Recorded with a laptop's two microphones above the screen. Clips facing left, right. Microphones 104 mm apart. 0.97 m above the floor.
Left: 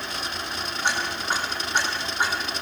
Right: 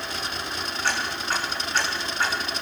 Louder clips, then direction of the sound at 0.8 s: Left 1 dB; 15° left (ahead or behind).